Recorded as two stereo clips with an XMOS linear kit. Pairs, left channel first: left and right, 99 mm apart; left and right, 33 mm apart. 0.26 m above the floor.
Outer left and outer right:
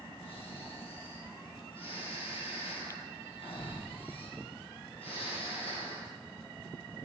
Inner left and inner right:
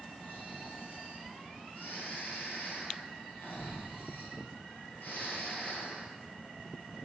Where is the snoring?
75° left (ahead or behind), 1.9 m.